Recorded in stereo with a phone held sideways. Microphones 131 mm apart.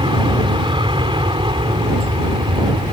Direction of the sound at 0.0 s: 40° right (ahead or behind).